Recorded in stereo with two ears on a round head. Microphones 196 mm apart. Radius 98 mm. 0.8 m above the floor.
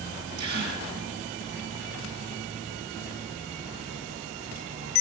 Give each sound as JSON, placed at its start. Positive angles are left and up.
{"t": 0.4, "sound": "a gasp", "side_deg": -50, "distance_m": 3.0}